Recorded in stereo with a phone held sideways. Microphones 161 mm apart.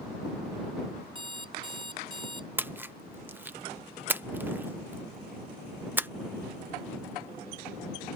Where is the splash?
10° right (ahead or behind).